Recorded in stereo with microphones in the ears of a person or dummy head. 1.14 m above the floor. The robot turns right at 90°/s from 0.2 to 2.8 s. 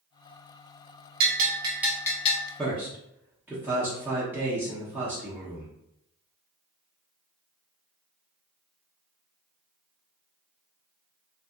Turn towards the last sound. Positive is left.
turn(degrees=-5)  # may be behind; listen again after turning